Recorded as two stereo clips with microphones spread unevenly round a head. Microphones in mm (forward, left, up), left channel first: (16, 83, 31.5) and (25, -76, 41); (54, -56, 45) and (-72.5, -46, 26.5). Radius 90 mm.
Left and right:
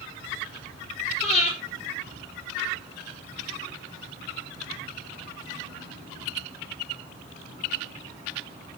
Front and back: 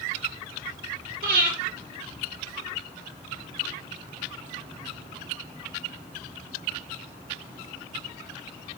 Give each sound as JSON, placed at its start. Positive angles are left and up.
{"t": 1.2, "sound": "breathing", "azimuth_deg": 155, "distance_m": 5.5}